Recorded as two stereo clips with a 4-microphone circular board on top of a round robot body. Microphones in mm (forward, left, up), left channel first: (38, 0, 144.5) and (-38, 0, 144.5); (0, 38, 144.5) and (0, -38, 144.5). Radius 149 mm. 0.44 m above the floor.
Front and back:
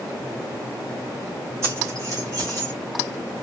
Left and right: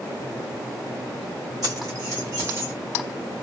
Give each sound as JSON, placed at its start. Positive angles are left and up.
{"t": 1.6, "sound": "keys jangling", "azimuth_deg": -130, "distance_m": 2.5}